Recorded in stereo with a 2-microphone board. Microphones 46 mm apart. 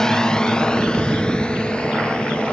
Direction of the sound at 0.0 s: 15° left (ahead or behind).